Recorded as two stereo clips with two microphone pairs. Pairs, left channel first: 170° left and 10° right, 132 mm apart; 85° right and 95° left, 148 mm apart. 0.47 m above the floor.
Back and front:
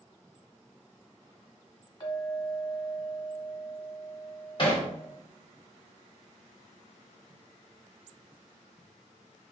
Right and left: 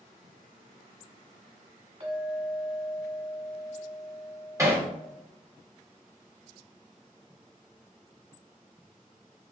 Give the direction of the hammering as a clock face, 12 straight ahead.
7 o'clock.